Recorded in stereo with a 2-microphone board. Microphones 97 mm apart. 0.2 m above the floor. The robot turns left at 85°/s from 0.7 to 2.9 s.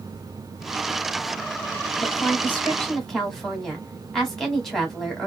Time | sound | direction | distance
2.0 | a woman speaking | 25° left (ahead or behind) | 1.5 m